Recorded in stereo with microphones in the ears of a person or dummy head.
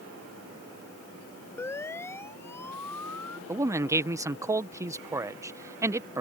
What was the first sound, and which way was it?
A siren, 10° left (ahead or behind).